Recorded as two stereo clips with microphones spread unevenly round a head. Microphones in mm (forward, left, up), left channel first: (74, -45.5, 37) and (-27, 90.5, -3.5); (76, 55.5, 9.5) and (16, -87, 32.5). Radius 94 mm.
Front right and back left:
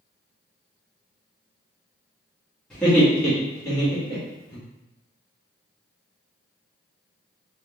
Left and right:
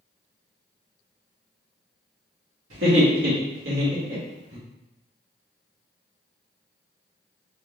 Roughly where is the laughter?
Behind right.